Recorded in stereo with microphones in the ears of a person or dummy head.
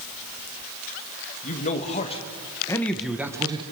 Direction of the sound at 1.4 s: 45° left (ahead or behind).